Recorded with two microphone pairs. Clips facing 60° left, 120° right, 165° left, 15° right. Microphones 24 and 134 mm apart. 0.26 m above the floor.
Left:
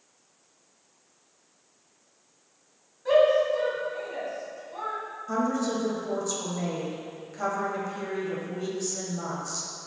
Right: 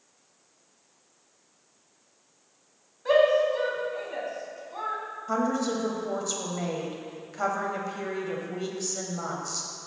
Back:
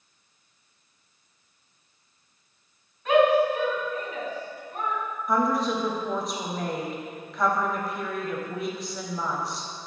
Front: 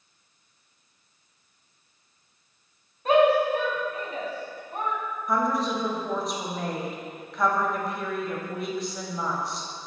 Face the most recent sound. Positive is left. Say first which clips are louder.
# even, back 1 dB
turn(degrees=-105)